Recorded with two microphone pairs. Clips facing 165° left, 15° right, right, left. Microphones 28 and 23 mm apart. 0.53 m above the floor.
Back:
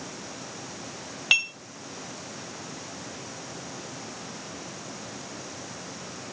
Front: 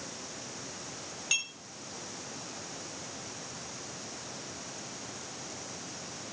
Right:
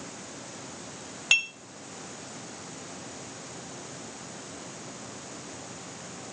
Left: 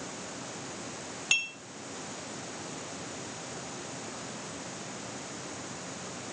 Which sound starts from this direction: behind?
Dishes clattering, at 1.3 s.